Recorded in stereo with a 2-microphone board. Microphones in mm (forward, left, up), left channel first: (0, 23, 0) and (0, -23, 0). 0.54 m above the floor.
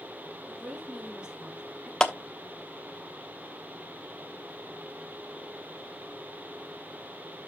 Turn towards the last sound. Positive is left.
turn(degrees=15)  # may be behind; listen again after turning